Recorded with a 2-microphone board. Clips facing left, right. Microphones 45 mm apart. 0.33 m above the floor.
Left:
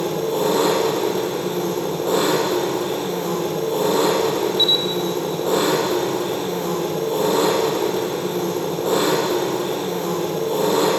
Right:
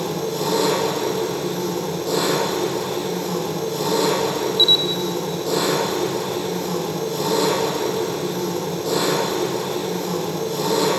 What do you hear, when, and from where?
0.0 s an engine running: 30° left (ahead or behind), 6.5 m
4.6 s a camera shutter: 50° left (ahead or behind), 0.5 m